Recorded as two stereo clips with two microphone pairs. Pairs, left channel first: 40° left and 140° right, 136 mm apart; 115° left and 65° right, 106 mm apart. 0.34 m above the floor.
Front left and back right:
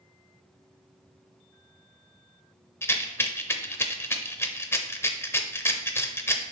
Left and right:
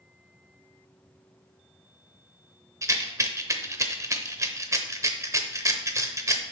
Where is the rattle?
20° right, 0.7 m.